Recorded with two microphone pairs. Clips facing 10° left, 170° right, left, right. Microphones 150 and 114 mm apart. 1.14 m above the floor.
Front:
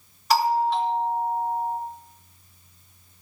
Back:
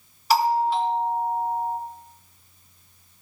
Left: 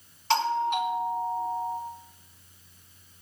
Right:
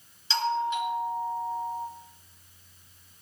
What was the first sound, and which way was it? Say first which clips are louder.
A doorbell: back 1 dB, left 2 dB; 105° left.